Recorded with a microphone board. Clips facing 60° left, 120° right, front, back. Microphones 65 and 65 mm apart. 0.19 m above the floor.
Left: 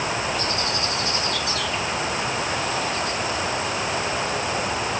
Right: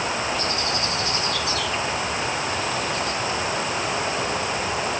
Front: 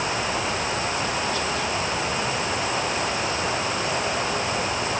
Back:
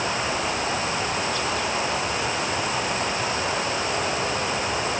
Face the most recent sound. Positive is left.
No sound to turn to.